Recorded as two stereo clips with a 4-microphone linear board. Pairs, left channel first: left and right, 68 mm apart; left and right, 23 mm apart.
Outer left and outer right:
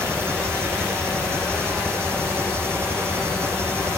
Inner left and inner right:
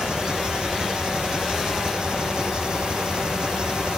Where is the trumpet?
I don't hear a trumpet.